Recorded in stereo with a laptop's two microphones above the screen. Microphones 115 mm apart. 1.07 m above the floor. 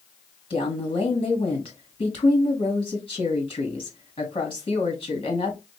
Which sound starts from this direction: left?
A woman speaking, at 0.5 s.